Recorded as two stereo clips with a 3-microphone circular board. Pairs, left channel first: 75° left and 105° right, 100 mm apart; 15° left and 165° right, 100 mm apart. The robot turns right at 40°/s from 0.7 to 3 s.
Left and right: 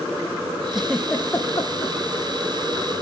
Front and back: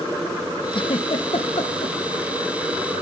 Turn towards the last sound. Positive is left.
turn(degrees=70)